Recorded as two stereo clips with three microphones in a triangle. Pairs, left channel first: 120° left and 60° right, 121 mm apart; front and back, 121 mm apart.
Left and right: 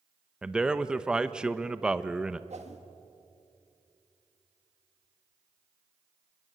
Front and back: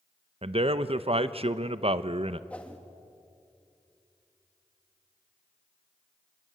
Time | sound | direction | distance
0.4 | a man speaking | 140° right | 0.8 m
2.5 | a whoosh | 80° right | 1.8 m